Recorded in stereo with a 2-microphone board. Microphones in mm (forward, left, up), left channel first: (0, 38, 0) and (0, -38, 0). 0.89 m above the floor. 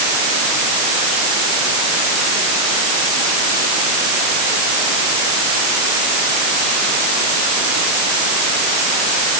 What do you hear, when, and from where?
Only background noise.